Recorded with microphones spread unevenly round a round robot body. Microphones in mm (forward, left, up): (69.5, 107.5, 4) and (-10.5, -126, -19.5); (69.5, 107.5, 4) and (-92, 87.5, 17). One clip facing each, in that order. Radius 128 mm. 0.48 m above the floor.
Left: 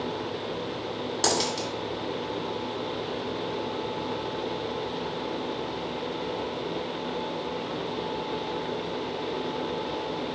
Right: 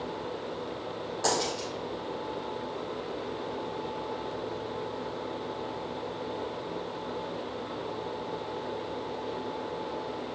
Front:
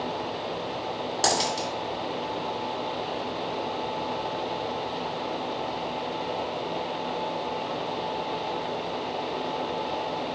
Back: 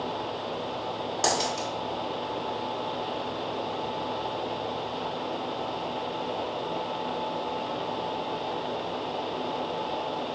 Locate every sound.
1.2 s a dropped coin: 65° left, 1.4 m